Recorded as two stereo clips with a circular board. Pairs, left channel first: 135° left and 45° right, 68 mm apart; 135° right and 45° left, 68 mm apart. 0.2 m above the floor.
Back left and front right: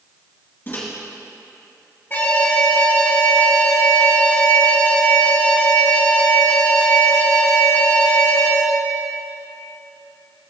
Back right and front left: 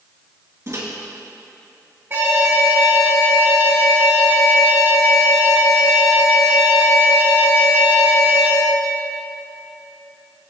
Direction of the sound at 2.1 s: 90° left.